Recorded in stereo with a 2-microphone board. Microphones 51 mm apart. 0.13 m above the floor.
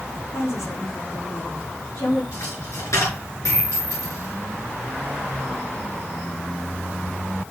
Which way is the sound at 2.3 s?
85° left.